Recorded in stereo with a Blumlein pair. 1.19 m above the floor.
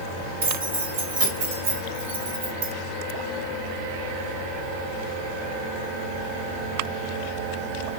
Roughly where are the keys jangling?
Ahead right.